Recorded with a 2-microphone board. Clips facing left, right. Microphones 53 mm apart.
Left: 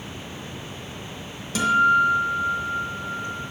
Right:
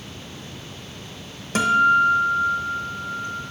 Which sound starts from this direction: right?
A guitar, at 1.6 s.